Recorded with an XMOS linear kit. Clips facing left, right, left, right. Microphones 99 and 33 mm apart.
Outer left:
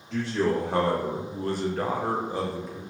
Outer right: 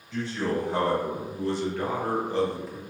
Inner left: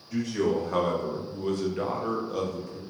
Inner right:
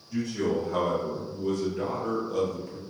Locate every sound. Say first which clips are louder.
0.1 s a man speaking: outer left 3 dB, inner left 1 dB; 75° left (ahead or behind), 1.3 m; by 2.8 s 10° right (ahead or behind), 0.7 m